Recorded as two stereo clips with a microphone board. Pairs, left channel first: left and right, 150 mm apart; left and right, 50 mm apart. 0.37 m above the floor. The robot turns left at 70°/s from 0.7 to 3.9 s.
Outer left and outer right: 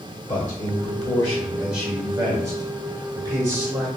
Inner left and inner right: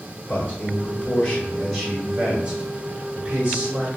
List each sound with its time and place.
0.3 s a man speaking: 25° left (ahead or behind), 1.0 m; by 3.9 s 10° right (ahead or behind), 1.0 m